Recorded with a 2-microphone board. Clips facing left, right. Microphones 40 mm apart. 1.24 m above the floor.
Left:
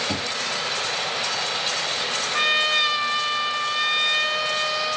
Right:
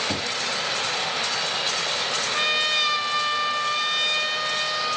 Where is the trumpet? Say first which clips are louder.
Left 3 dB; 10° left (ahead or behind), 1.4 m.